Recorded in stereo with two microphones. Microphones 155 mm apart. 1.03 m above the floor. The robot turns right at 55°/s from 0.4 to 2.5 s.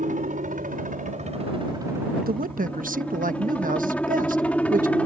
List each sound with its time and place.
0.0 s a helicopter: 105° right; by 5.1 s 10° left
2.2 s a man speaking: 75° right (ahead or behind); by 5.0 s 60° right (ahead or behind)